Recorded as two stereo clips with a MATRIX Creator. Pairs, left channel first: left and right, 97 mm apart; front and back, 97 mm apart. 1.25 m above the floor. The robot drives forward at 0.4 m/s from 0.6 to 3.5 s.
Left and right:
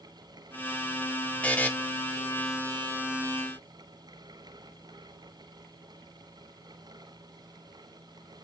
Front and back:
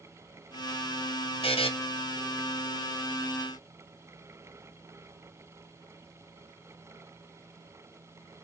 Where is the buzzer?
15° left, 0.8 m.